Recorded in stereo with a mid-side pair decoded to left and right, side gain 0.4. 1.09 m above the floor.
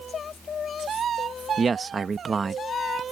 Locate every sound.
1.6 s a man speaking: 40° right